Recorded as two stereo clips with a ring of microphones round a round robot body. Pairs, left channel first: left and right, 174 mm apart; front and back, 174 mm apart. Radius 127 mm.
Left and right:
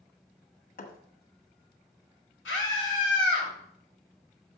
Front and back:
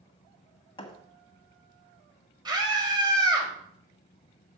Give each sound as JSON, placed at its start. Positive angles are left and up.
{"t": 0.8, "sound": "a thud", "azimuth_deg": 60, "distance_m": 1.7}
{"t": 2.5, "sound": "a scream", "azimuth_deg": 115, "distance_m": 5.5}